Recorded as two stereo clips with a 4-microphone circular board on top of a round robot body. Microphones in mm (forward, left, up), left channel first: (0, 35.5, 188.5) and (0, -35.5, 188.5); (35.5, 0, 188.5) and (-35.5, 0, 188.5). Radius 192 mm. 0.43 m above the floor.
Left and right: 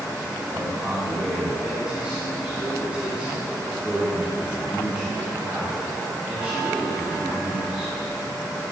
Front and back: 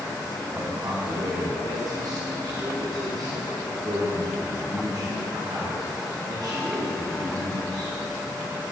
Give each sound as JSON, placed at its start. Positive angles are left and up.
{"t": 0.6, "sound": "a man speaking", "azimuth_deg": -165, "distance_m": 1.5}